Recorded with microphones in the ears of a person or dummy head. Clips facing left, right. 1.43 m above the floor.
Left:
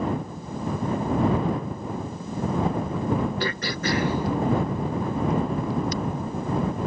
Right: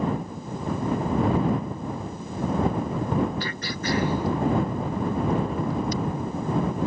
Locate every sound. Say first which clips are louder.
3.4 s throat clearing: left 3 dB; 60° left (ahead or behind)